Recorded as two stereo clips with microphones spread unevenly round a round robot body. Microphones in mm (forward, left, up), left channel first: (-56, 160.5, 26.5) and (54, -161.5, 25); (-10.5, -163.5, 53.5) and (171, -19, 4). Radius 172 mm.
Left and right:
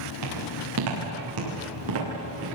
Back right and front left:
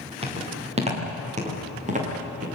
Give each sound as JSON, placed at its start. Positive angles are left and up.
{"t": 0.2, "sound": "footsteps", "azimuth_deg": -25, "distance_m": 9.5}